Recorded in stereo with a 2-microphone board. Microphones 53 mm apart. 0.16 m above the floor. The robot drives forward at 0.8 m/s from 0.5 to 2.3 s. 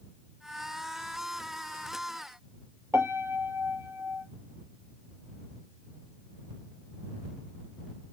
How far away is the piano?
About 1.1 m.